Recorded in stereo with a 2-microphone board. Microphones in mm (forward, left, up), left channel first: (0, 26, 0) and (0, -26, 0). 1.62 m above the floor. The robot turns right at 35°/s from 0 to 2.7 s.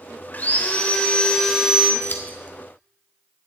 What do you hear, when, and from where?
0.3 s sawing: 130° left, 1.8 m; by 1.9 s 175° right, 1.8 m
2.0 s scissors: 40° left (ahead or behind), 1.5 m; by 2.4 s 30° left (ahead or behind), 1.5 m